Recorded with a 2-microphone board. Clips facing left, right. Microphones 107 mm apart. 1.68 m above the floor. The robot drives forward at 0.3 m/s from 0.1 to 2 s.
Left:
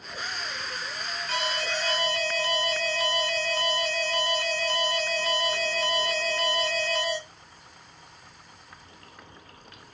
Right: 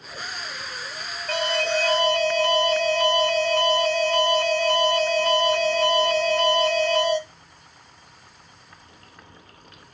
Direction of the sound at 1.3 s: 55° right (ahead or behind).